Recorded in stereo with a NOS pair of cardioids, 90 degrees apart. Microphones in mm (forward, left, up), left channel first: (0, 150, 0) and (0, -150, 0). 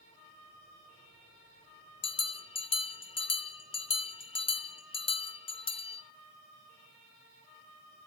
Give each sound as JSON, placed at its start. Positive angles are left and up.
{"t": 2.0, "sound": "a bell", "azimuth_deg": 20, "distance_m": 0.5}